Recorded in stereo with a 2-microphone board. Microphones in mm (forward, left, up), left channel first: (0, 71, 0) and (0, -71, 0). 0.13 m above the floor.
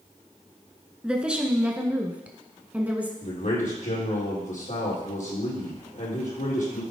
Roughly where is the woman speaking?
Centre.